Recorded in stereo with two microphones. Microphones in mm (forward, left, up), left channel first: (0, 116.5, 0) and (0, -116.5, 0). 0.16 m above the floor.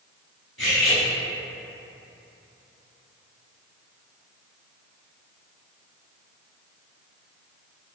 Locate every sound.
0.6 s cutlery clinking: 60° left (ahead or behind), 1.1 m